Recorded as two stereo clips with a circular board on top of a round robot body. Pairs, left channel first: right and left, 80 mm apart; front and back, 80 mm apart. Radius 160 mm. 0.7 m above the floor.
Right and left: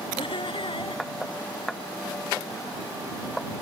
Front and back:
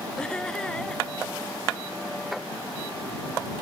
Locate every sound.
0.2 s laughter: 80° right